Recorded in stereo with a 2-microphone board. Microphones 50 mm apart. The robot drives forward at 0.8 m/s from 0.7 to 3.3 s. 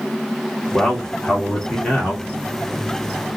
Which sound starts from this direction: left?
A man speaking, at 0.7 s.